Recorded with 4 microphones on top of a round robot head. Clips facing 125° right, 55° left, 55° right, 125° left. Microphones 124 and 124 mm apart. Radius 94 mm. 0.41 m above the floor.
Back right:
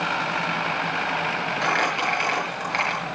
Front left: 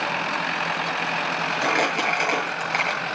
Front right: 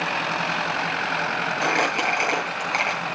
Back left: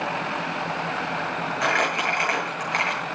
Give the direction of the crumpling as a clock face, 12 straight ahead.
12 o'clock.